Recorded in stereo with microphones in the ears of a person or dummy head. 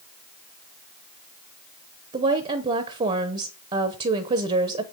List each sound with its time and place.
2.1 s a woman speaking: 25° right (ahead or behind), 0.8 m